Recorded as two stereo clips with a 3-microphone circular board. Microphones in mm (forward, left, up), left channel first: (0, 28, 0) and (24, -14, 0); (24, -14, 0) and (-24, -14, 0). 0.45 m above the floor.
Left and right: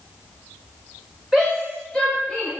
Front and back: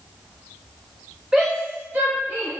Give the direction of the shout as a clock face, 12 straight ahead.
5 o'clock.